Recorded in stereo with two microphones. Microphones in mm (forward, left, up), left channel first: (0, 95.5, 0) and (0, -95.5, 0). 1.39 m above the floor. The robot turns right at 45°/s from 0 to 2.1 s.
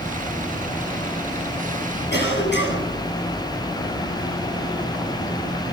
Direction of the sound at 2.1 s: 70° left (ahead or behind).